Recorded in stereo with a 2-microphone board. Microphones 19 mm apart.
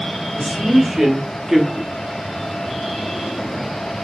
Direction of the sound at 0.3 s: 45° right (ahead or behind).